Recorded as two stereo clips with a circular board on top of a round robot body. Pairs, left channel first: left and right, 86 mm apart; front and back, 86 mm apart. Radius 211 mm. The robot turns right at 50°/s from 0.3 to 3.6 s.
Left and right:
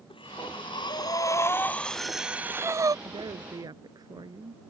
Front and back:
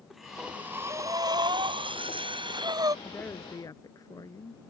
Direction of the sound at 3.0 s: 80° right.